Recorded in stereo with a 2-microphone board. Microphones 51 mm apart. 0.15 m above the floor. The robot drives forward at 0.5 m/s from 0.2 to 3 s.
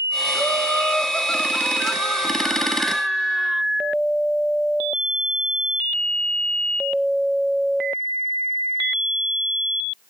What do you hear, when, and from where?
0.3 s laughter: 20° left (ahead or behind), 1.1 m; by 3.6 s 15° left (ahead or behind), 1.5 m